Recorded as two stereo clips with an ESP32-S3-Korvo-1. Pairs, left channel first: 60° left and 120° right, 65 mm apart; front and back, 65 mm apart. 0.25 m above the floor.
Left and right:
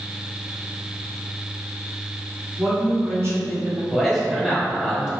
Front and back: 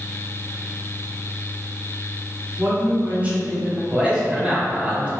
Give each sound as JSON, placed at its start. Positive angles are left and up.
{"t": 2.6, "sound": "a woman speaking", "azimuth_deg": -140, "distance_m": 2.0}
{"t": 3.9, "sound": "a man speaking", "azimuth_deg": 165, "distance_m": 1.2}